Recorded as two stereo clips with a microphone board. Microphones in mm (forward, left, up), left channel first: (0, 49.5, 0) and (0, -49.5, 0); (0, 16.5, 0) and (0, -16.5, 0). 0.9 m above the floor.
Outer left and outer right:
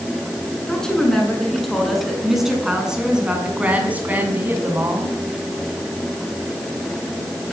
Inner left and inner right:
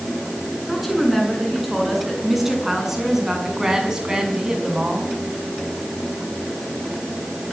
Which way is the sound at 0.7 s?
10° left (ahead or behind).